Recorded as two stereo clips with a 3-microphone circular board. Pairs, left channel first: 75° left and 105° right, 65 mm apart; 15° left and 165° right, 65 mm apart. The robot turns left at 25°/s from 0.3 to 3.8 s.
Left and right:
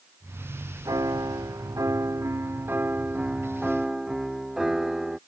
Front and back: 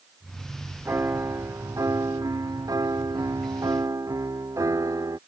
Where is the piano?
115° right; by 5.2 s 175° left.